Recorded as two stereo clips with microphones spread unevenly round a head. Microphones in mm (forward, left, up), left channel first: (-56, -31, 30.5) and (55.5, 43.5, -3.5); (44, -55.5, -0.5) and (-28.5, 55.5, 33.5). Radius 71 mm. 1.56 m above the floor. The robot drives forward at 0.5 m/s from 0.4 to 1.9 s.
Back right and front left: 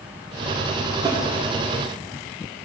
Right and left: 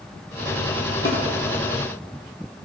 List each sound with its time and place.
1.1 s a snare drum: 35° right, 1.4 m; by 1.2 s 40° right, 1.4 m